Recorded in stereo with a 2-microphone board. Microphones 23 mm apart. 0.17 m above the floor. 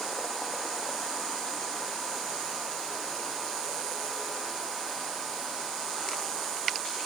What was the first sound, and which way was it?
Only background noise.